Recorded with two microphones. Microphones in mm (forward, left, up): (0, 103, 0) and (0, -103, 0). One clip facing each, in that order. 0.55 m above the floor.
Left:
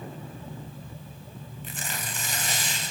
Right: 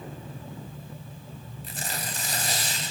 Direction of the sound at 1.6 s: 40° right (ahead or behind).